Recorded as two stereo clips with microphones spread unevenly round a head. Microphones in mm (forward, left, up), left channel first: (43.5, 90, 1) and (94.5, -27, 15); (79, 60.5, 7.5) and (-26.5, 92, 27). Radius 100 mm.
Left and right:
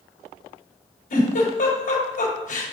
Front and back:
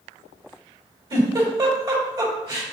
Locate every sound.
1.1 s a giggle: 115° left, 3.5 m